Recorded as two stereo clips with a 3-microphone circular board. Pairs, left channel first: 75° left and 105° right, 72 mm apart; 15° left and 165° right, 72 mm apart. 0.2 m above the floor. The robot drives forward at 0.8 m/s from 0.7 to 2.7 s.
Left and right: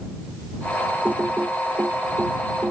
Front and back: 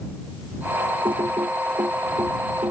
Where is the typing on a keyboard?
175° right.